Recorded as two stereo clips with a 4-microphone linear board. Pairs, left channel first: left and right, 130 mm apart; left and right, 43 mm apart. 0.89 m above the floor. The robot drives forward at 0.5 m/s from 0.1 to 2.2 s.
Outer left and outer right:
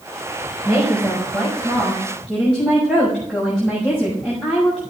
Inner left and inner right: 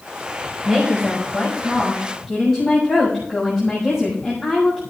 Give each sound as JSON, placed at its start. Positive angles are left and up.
{"t": 0.7, "sound": "a woman speaking", "side_deg": -10, "distance_m": 5.5}